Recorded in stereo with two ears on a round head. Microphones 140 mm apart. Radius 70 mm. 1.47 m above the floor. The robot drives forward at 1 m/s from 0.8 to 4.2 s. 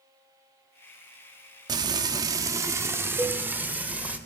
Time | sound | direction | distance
1.7 | frying | 25° right (ahead or behind) | 1.0 m
3.2 | a cowbell | 15° right (ahead or behind) | 1.0 m